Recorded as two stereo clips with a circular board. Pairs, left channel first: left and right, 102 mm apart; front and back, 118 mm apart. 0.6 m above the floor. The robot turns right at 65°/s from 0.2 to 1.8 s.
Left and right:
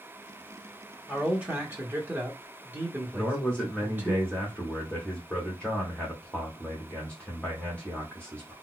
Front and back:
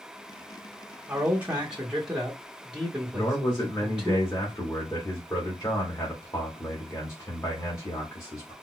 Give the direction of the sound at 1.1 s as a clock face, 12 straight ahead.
5 o'clock.